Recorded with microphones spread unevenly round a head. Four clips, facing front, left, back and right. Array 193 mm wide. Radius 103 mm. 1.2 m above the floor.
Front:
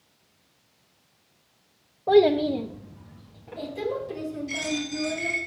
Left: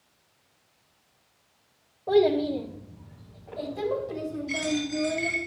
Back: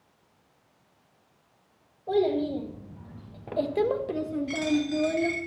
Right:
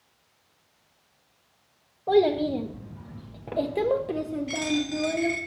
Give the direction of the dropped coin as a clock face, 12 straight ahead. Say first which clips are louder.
Left 1 dB, back 4 dB; 4 o'clock.